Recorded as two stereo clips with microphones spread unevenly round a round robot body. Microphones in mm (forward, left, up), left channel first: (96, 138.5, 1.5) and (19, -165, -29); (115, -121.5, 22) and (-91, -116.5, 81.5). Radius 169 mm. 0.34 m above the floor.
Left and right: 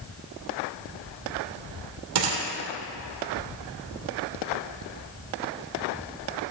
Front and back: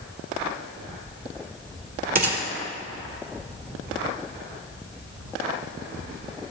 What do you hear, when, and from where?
2.1 s a gunshot: 140° right, 2.0 m